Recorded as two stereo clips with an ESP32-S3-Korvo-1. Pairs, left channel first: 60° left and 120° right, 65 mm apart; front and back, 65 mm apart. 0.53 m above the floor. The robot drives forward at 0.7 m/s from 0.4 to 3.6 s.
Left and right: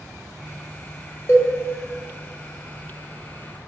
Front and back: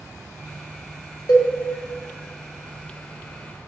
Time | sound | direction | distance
1.3 | a cowbell | 10° left | 1.6 m